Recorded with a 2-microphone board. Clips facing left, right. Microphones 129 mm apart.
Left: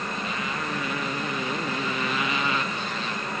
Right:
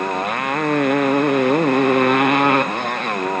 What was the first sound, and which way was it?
A motorcycle, 65° right (ahead or behind).